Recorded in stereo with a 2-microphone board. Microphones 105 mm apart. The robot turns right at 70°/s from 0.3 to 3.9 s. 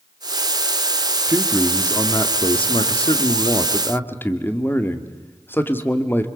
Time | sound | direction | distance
1.3 | a man speaking | 25° right | 1.7 m